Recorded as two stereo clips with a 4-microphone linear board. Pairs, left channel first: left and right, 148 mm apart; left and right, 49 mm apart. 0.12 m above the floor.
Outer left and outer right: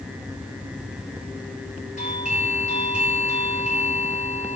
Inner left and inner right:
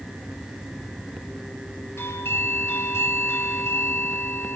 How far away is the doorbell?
About 3.5 m.